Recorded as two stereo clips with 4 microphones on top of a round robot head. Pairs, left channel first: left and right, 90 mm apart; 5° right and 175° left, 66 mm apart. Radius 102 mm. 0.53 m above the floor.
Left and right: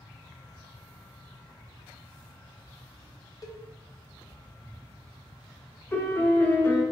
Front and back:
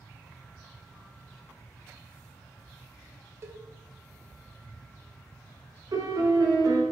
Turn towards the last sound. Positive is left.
turn(degrees=155)